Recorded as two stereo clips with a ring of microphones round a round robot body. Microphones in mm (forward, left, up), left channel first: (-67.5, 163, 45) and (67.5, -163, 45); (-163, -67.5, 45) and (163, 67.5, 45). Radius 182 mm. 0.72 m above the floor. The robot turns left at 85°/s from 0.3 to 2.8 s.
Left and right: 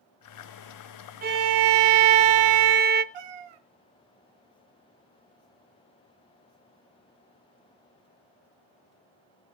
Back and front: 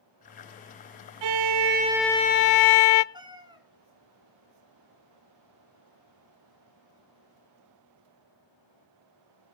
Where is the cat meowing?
55° right, 1.2 m.